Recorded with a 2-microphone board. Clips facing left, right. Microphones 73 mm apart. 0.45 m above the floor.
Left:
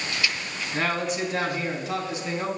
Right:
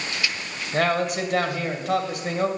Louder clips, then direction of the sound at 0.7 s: Right 4 dB; 60° right (ahead or behind).